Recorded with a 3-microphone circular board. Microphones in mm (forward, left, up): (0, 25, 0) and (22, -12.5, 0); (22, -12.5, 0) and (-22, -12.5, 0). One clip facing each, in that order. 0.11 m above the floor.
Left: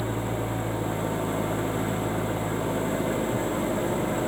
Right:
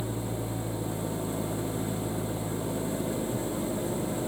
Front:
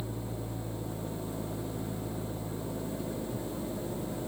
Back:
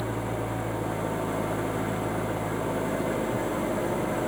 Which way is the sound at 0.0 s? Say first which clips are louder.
Left 5 dB, back 9 dB; 165° left.